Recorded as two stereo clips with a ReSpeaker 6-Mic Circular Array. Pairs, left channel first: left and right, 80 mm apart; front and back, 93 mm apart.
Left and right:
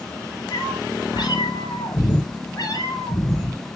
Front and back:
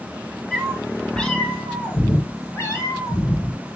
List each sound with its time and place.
0.5 s a cat meowing: 90° left, 2 m; by 3.6 s 45° left, 3 m